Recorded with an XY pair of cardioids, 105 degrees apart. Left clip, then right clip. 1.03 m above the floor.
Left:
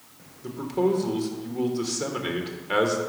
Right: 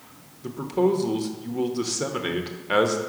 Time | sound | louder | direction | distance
0.4 | a man speaking | right 2 dB | 20° right | 0.9 m